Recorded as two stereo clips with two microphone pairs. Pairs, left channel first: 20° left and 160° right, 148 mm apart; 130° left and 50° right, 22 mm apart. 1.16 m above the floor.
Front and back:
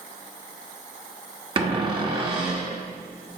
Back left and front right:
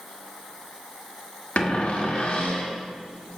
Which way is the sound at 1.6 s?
145° left.